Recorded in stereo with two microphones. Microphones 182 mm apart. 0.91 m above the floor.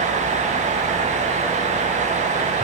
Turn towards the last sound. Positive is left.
No sound to turn to.